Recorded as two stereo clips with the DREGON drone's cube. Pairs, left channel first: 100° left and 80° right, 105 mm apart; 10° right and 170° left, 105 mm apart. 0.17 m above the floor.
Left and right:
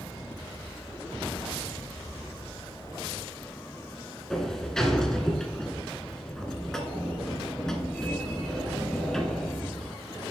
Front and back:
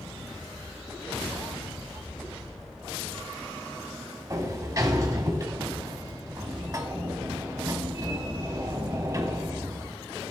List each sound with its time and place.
4.3 s a sliding door: straight behind, 1.1 m